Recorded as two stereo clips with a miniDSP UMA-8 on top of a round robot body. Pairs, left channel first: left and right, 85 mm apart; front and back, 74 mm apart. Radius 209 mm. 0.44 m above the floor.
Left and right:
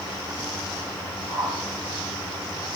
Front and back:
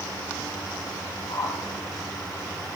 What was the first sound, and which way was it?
A whoosh, 15° left.